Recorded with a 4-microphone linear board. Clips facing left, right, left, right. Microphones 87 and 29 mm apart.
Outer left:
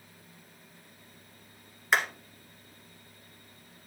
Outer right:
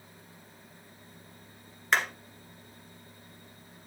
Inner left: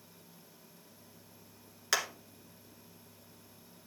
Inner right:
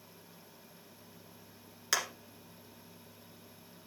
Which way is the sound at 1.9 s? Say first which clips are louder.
Even, inner left 1 dB; 5° left (ahead or behind).